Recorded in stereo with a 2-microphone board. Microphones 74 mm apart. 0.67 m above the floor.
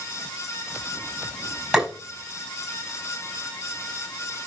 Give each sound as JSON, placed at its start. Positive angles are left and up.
{"t": 1.7, "sound": "tapping", "side_deg": -5, "distance_m": 5.0}